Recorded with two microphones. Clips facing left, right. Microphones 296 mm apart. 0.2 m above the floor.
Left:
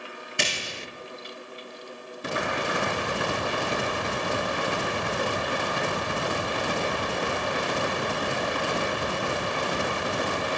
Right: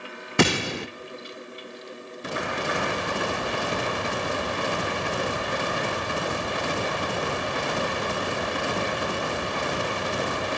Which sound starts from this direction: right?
A gunshot, at 0.4 s.